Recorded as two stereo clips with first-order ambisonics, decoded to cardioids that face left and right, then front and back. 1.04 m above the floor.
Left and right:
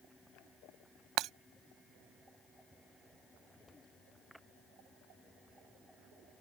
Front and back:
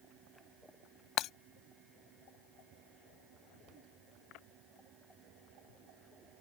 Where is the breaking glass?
50° right.